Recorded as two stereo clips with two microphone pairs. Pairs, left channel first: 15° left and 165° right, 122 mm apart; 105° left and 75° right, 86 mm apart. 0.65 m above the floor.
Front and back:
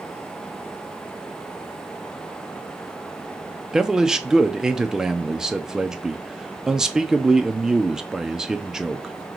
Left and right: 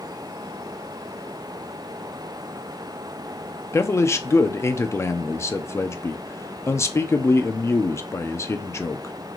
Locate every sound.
3.7 s a man speaking: 120° left, 0.6 m